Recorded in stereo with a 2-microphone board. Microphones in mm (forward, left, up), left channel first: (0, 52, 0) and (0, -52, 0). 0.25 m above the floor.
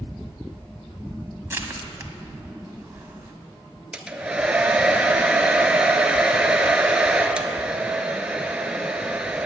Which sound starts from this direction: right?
Crushing, at 1.5 s.